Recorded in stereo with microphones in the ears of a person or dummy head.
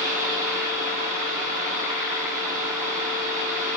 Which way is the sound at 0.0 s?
10° right (ahead or behind).